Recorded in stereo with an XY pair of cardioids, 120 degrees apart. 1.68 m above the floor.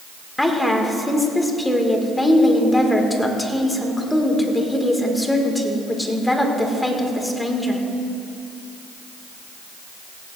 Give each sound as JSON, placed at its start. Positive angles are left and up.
{"t": 0.4, "sound": "a woman speaking", "azimuth_deg": 10, "distance_m": 1.9}